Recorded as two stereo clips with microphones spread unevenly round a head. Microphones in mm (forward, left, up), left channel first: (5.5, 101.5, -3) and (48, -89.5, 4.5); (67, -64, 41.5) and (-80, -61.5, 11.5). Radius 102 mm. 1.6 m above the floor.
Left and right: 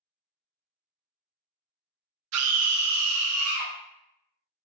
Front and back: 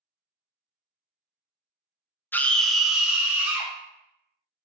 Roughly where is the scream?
Right.